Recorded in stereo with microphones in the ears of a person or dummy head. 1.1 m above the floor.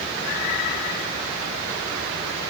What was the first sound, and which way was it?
Only background noise.